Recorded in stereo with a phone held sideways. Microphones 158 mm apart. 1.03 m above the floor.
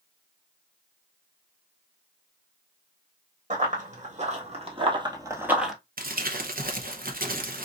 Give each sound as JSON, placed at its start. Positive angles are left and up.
{"t": 3.5, "sound": "running footsteps", "side_deg": -55, "distance_m": 2.0}
{"t": 6.0, "sound": "crumpling", "side_deg": -65, "distance_m": 0.9}